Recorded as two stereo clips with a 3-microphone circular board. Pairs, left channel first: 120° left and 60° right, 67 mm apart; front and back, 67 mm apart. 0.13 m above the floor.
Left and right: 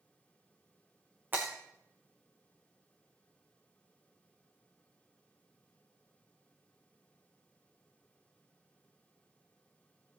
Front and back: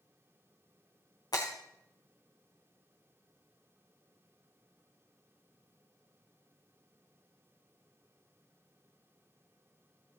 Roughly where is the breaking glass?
Ahead.